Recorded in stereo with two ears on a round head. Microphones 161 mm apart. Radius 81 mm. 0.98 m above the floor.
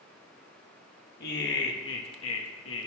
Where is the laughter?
60° left (ahead or behind), 1.1 m; by 2.9 s 75° left (ahead or behind), 1.1 m.